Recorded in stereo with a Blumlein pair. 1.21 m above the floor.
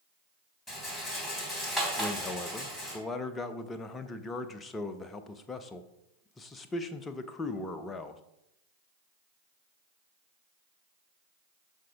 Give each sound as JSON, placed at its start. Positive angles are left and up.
{"t": 0.7, "sound": "a rattle", "azimuth_deg": 5, "distance_m": 3.0}
{"t": 2.0, "sound": "a man speaking", "azimuth_deg": 15, "distance_m": 0.8}